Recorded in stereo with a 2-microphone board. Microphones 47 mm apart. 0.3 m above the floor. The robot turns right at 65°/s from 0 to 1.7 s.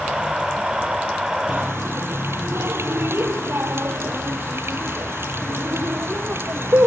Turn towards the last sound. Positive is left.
turn(degrees=-60)  # may be behind; listen again after turning